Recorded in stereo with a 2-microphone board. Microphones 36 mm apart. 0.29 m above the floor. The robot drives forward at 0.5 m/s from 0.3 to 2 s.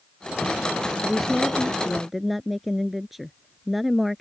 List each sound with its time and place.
1.0 s a woman speaking: centre (ahead or behind)